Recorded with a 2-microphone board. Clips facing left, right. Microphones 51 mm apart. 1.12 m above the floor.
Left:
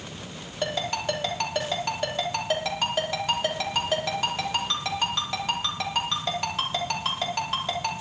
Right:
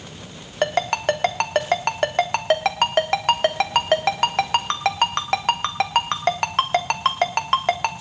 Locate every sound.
0.6 s a ringtone: 60° right (ahead or behind), 1.2 m